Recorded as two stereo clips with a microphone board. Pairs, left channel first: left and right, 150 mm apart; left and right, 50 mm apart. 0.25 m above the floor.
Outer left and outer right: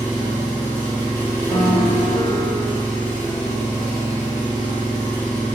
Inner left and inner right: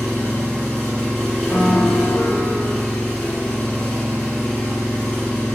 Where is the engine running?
15° left (ahead or behind), 1.1 m.